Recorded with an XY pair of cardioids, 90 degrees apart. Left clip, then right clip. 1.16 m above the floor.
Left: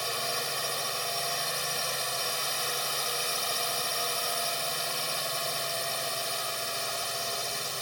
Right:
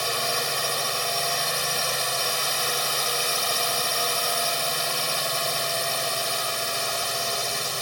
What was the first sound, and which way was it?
A drone, 45° right.